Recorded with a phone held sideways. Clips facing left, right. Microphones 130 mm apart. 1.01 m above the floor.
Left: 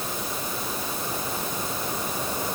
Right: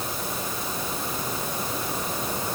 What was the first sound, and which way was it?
Only background noise.